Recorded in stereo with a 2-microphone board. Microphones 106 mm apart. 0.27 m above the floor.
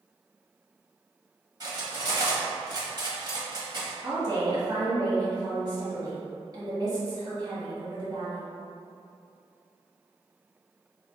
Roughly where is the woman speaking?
Right.